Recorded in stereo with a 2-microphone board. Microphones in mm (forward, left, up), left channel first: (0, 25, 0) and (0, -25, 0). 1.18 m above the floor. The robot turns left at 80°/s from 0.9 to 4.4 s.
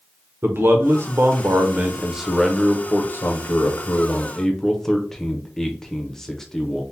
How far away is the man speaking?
About 0.6 m.